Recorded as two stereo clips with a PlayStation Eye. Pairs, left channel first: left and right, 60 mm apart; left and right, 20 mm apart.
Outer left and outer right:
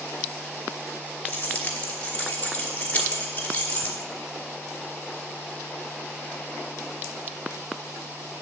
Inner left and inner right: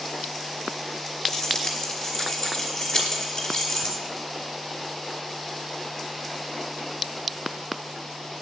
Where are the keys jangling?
25° left (ahead or behind), 3.5 m.